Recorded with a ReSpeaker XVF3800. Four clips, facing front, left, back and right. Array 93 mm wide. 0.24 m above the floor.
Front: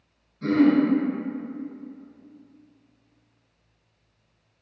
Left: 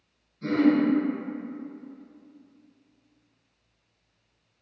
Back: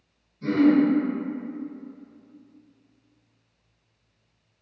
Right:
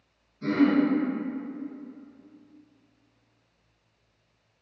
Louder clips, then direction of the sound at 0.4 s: Left 1 dB, even; 15° right.